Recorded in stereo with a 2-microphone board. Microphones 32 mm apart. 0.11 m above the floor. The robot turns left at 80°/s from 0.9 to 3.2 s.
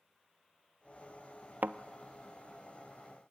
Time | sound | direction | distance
1.6 | a thud | 65° right (ahead or behind) | 0.6 m